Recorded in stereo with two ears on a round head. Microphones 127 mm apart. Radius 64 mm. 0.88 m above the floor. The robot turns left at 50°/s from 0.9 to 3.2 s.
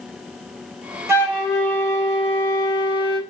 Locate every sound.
1.1 s a flute: 160° right, 3 m; by 3.2 s 95° left, 3 m